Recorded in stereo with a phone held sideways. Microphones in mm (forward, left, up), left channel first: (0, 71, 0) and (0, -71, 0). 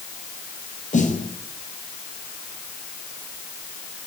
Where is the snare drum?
60° left (ahead or behind), 1.8 m.